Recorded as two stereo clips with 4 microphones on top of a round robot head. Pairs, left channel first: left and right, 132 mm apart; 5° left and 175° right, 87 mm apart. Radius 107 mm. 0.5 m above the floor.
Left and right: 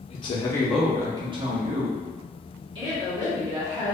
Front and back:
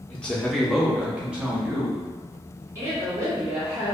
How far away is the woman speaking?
About 1.8 m.